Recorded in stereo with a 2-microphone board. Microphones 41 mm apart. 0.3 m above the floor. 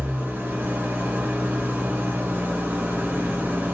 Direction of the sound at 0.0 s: 45° right (ahead or behind).